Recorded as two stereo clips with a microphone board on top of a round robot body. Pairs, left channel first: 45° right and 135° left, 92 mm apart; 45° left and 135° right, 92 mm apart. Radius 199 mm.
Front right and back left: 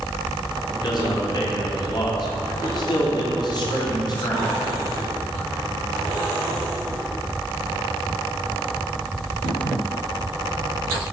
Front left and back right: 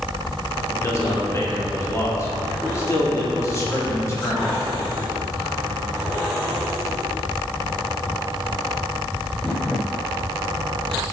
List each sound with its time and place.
0.7 s a man speaking: 10° right, 2 m